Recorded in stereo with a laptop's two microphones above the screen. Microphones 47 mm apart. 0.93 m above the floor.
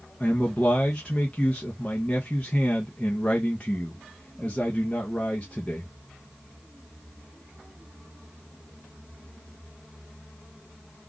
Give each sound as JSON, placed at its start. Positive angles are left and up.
{"t": 0.2, "sound": "a man speaking", "side_deg": 25, "distance_m": 0.7}